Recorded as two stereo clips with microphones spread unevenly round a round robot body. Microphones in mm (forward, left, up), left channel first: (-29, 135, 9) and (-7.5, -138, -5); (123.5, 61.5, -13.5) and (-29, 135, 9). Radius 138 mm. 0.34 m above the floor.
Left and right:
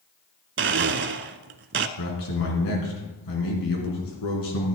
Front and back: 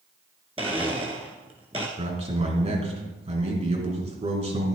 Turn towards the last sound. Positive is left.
turn(degrees=100)